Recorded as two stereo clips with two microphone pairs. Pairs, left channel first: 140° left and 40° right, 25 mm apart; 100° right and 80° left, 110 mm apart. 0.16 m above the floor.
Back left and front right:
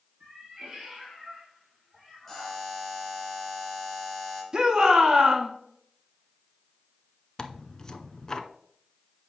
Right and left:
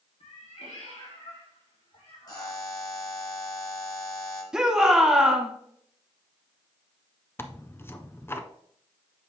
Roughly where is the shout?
Ahead.